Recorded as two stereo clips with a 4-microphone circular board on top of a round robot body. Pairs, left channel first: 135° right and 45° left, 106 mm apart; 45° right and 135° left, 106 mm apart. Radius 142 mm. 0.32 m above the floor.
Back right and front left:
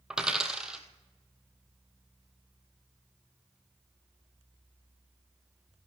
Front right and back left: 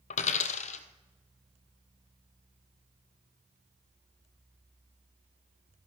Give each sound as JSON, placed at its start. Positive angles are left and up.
{"t": 0.1, "sound": "a dropped coin", "azimuth_deg": -40, "distance_m": 0.5}